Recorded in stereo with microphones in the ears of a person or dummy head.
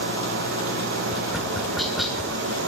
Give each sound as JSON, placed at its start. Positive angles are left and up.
{"t": 0.0, "sound": "an engine running", "side_deg": -60, "distance_m": 1.9}
{"t": 1.1, "sound": "tapping", "side_deg": -5, "distance_m": 1.2}